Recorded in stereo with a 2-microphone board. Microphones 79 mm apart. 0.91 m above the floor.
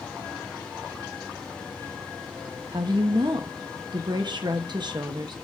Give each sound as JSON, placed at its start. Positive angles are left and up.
{"t": 2.7, "sound": "a woman speaking", "side_deg": -60, "distance_m": 0.8}